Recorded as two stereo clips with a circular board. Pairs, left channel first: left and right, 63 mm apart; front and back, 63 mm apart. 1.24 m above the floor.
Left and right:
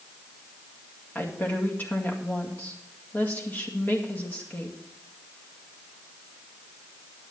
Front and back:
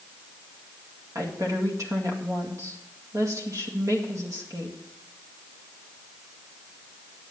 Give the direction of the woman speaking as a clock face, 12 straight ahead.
7 o'clock.